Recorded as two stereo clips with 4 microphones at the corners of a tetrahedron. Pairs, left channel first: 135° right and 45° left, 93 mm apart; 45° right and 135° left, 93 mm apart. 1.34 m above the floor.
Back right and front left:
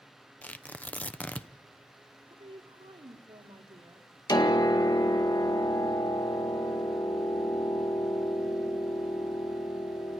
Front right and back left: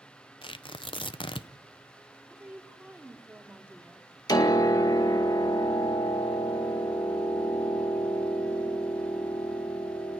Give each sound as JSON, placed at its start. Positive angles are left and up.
{"t": 0.4, "sound": "tearing paper", "azimuth_deg": -60, "distance_m": 0.8}
{"t": 2.3, "sound": "a woman speaking", "azimuth_deg": 60, "distance_m": 2.5}
{"t": 4.3, "sound": "a piano", "azimuth_deg": -90, "distance_m": 2.0}